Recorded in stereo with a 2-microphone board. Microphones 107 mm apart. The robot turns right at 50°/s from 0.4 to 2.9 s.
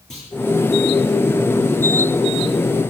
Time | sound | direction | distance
0.1 | a clunk | 5° left (ahead or behind) | 10 m